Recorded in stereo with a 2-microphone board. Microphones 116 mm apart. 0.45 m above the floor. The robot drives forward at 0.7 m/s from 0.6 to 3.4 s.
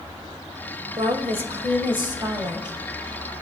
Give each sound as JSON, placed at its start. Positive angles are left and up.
{"t": 1.0, "sound": "a woman speaking", "side_deg": -60, "distance_m": 1.4}